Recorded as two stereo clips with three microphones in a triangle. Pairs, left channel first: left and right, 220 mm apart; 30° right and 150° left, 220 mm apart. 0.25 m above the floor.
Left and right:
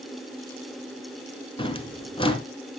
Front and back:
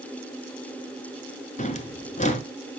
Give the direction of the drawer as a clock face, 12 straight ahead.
11 o'clock.